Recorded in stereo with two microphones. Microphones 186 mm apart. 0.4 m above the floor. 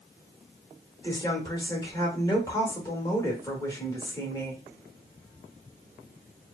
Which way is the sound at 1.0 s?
20° left (ahead or behind).